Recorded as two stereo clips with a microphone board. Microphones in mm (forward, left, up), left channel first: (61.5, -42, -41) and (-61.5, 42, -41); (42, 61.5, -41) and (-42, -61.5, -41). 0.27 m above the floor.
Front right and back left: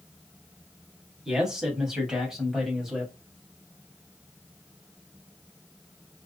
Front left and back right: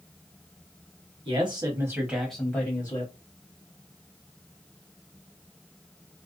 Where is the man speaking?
130° right, 1.1 m; by 3.1 s 60° left, 1.0 m.